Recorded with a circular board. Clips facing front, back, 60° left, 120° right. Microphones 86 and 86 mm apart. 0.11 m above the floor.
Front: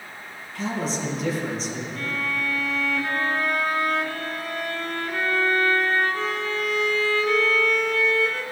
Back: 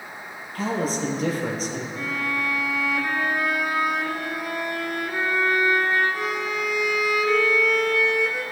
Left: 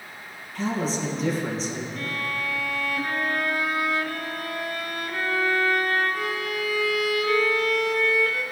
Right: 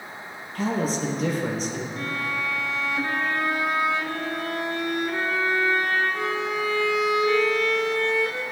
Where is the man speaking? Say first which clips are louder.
Back 2 dB, right 1 dB; 150° right, 2.5 m.